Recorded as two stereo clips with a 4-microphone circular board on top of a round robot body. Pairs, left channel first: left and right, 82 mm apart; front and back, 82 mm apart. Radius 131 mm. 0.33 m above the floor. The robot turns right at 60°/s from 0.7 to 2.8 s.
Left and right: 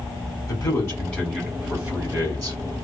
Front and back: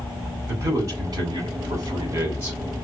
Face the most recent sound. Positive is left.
turn(degrees=-110)